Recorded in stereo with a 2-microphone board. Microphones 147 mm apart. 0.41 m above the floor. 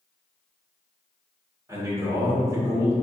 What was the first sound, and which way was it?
A man speaking, 20° right (ahead or behind).